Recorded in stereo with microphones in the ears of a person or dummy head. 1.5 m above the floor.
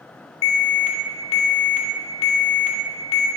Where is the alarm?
35° left (ahead or behind), 1.1 m.